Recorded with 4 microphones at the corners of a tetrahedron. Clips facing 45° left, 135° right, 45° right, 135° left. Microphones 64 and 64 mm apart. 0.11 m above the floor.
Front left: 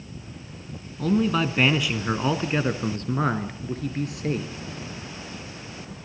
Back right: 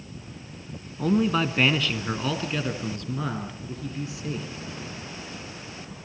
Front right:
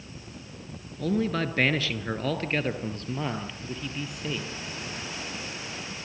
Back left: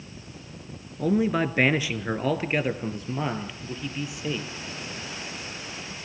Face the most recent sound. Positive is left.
turn(degrees=50)